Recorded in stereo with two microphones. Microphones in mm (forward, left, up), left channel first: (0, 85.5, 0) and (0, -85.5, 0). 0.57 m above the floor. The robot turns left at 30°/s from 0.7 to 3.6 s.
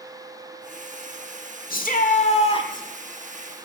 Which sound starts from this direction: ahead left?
A shout, at 1.7 s.